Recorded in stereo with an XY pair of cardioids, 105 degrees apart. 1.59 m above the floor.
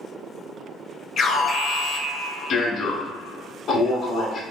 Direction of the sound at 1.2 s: 55° left.